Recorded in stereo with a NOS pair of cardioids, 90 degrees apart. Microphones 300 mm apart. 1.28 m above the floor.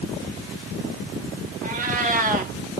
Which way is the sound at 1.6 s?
30° right.